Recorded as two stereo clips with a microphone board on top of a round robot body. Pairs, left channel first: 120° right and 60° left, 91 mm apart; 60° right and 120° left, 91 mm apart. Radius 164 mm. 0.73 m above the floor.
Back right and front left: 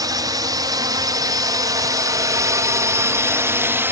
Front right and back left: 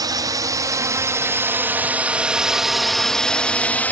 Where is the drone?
90° left; by 3.9 s 5° left.